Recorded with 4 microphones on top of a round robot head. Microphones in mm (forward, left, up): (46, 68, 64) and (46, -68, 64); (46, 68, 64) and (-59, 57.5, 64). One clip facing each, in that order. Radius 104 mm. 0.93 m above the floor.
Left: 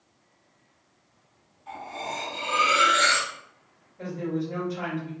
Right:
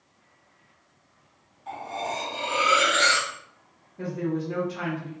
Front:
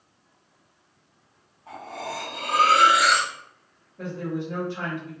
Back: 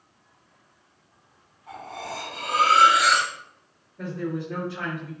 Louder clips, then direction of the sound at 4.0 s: Right 1 dB, even; 85° right.